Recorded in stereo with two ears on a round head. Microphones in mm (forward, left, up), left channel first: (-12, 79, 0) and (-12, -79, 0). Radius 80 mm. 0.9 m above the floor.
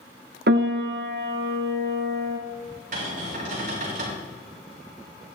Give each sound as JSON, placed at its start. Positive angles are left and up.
{"t": 0.5, "sound": "a piano", "side_deg": -60, "distance_m": 0.9}
{"t": 2.9, "sound": "a cupboard door", "side_deg": -50, "distance_m": 5.0}